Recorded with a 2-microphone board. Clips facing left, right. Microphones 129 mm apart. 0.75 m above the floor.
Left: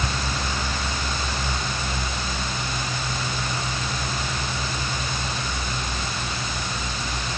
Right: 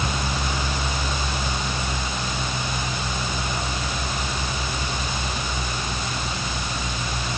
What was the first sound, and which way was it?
Only background noise.